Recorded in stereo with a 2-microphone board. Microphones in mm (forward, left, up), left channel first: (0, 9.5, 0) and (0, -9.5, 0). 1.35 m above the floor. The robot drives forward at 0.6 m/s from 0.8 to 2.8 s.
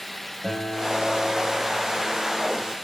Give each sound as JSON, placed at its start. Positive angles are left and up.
{"t": 0.4, "sound": "a guitar", "side_deg": -5, "distance_m": 4.0}